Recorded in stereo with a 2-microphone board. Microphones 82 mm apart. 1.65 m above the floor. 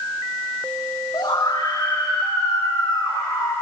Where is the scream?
60° left (ahead or behind), 3.5 m; by 3.5 s 30° left (ahead or behind), 6.5 m.